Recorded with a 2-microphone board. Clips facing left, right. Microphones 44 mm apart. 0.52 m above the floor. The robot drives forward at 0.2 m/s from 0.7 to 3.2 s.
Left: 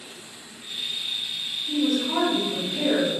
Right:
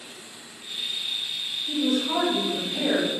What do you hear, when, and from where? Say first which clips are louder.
1.7 s a woman speaking: left 1 dB; 25° right (ahead or behind), 1.5 m